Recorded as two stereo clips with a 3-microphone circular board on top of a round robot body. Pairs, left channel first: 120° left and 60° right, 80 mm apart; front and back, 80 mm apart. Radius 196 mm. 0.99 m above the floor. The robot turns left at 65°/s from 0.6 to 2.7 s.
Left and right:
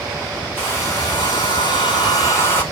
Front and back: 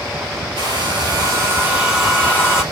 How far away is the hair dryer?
About 3.5 m.